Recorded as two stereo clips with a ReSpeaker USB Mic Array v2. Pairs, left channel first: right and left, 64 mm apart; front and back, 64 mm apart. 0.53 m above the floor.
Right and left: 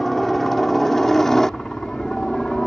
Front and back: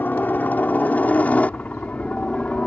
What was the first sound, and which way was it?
A helicopter, 10° right.